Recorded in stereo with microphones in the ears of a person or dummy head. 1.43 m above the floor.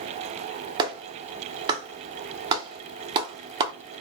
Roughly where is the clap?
Right.